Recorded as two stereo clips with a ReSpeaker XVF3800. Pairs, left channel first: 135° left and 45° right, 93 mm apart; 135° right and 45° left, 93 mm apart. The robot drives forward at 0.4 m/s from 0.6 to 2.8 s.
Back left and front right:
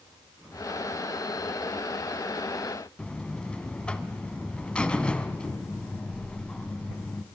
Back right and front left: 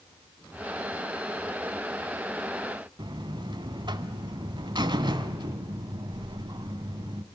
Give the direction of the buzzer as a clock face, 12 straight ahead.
10 o'clock.